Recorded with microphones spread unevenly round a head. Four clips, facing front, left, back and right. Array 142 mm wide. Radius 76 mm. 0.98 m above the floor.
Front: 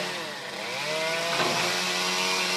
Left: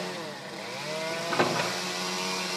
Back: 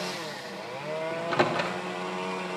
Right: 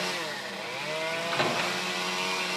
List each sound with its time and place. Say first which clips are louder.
1.1 s a microwave: left 3 dB, back 4 dB; 145° left, 1.1 m